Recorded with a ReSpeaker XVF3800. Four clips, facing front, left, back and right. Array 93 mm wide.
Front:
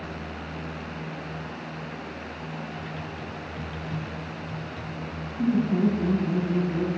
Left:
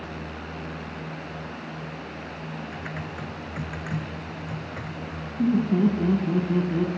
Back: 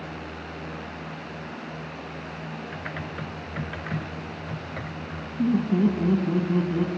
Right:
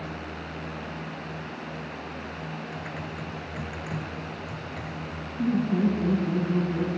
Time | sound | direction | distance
2.7 | typing on a keyboard | 150° left | 0.9 m
5.4 | laughter | 140° left | 1.7 m